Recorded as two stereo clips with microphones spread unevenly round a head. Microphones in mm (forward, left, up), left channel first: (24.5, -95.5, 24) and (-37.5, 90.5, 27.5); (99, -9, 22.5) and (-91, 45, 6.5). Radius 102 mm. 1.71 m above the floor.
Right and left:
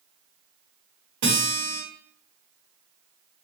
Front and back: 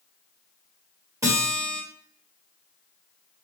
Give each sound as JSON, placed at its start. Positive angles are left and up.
{"t": 1.2, "sound": "a guitar", "azimuth_deg": 90, "distance_m": 1.7}